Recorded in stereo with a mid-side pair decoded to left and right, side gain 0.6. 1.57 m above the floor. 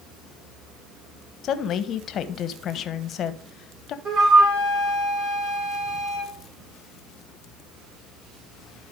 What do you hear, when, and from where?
1.4 s a woman speaking: 50° left, 1.2 m
4.0 s a flute: 50° right, 4.5 m